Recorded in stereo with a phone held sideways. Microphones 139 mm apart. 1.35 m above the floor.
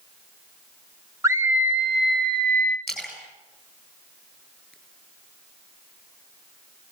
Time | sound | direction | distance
1.2 | a scream | 25° right (ahead or behind) | 1.5 m
2.9 | a splash | 5° left (ahead or behind) | 7.5 m